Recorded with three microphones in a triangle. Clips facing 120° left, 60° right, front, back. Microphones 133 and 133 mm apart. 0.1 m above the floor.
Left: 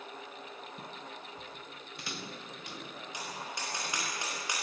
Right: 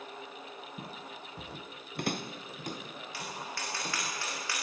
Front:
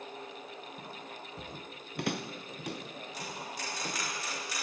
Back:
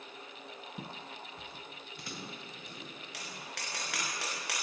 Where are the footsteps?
125° right, 0.7 m; by 4.0 s 10° right, 4 m.